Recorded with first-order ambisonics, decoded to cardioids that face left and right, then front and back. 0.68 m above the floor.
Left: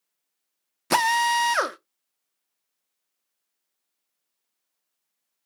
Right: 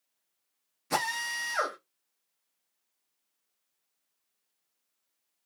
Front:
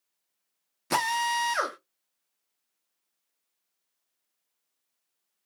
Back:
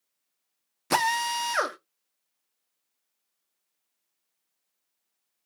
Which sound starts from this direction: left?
A drill, at 0.9 s.